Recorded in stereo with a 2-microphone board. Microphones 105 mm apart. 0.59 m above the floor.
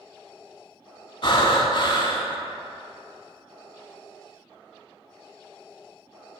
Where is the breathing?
50° left (ahead or behind), 0.6 m.